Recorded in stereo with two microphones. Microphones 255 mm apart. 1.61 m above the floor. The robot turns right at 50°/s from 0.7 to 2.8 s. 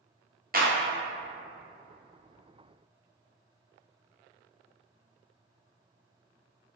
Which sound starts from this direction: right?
A clap, at 0.5 s.